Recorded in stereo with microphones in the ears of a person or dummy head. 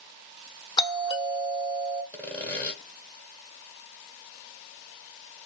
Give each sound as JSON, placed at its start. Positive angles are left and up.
{"t": 0.8, "sound": "a doorbell", "side_deg": 20, "distance_m": 0.8}
{"t": 2.1, "sound": "sawing", "side_deg": 15, "distance_m": 1.3}